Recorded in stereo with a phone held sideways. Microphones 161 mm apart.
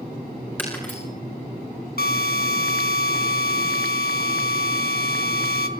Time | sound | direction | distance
0.6 | breaking glass | 10° left (ahead or behind) | 7.5 m
2.0 | a drill | 70° left (ahead or behind) | 1.8 m